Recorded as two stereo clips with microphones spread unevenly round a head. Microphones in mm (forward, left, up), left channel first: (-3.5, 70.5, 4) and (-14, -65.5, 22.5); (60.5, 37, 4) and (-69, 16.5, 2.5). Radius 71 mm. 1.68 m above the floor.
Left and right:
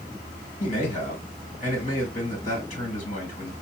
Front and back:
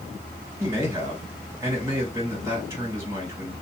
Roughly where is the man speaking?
Behind left.